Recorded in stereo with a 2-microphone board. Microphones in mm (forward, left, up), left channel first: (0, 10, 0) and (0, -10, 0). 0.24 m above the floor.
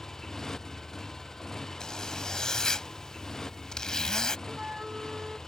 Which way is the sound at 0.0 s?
25° left (ahead or behind).